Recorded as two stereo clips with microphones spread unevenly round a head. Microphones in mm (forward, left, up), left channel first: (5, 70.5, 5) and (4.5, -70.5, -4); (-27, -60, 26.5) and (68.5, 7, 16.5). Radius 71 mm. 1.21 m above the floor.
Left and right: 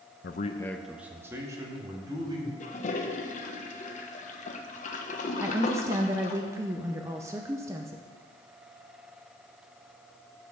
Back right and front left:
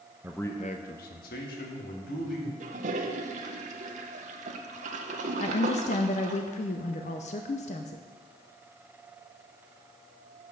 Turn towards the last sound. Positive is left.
turn(degrees=-155)